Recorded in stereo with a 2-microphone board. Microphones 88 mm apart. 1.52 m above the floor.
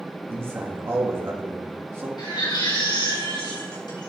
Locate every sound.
0.3 s a man speaking: 30° right (ahead or behind), 2.5 m
2.2 s a baby crying: 55° left (ahead or behind), 4.5 m